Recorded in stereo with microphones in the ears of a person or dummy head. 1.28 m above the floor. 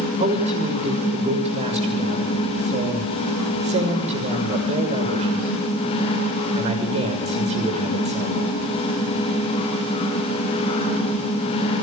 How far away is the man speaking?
About 6 m.